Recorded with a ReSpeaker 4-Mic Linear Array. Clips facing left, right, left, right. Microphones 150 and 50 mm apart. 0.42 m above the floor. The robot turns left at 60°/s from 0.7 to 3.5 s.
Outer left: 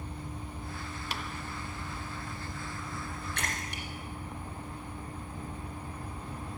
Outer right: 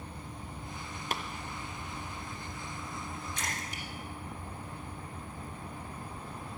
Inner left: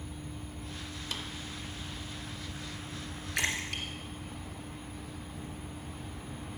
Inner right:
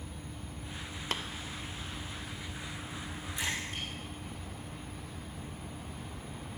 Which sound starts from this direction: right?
Tapping, at 1.1 s.